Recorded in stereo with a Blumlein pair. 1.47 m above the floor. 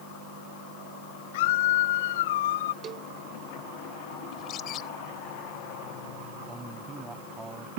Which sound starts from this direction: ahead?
A man speaking, at 6.5 s.